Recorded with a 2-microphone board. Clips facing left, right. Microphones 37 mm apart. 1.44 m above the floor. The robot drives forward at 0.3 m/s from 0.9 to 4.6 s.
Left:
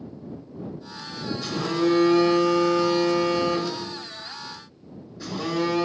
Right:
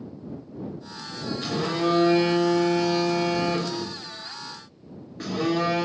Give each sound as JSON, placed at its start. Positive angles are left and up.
{"t": 1.4, "sound": "a phone buzzing", "side_deg": -50, "distance_m": 1.2}